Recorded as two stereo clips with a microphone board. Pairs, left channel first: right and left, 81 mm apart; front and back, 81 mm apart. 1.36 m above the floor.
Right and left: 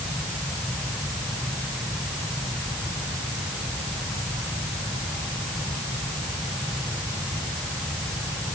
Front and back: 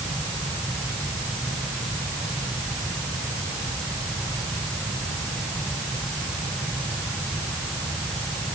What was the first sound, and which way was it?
Only background noise.